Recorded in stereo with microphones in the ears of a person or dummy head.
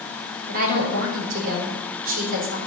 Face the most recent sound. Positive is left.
turn(degrees=-50)  # may be behind; listen again after turning